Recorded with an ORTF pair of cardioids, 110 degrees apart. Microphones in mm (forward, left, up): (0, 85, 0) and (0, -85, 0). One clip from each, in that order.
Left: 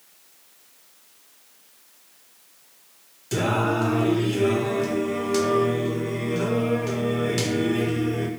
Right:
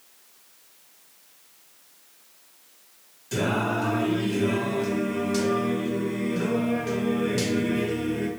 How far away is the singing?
About 0.9 m.